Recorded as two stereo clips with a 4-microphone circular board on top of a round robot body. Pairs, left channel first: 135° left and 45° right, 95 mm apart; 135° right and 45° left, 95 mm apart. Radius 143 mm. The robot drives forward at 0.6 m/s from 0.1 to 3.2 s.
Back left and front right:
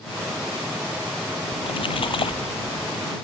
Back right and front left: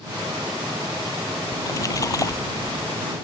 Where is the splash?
165° left; by 2.9 s 170° left.